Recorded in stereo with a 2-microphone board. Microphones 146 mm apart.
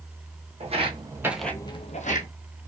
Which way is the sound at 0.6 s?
45° right (ahead or behind).